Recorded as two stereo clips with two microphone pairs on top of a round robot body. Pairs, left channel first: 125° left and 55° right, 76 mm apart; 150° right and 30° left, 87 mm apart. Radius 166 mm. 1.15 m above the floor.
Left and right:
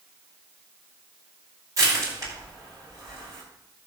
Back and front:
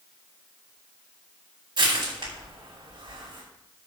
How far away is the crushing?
About 8 m.